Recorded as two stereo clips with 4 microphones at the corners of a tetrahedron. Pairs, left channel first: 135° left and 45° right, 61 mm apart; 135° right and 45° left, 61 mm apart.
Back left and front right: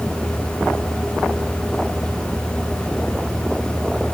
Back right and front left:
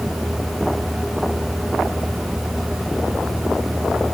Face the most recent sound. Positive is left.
No sound to turn to.